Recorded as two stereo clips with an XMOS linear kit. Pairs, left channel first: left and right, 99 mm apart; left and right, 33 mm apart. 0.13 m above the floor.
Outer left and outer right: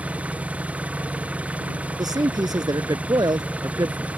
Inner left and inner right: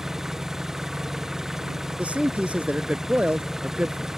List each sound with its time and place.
0.0 s an engine running: 15° right (ahead or behind)
2.0 s a man speaking: 45° right (ahead or behind)